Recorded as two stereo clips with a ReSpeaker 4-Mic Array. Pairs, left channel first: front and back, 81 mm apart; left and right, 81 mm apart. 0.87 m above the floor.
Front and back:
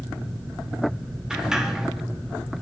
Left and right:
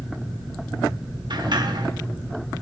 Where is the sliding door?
95° right, 1.7 m.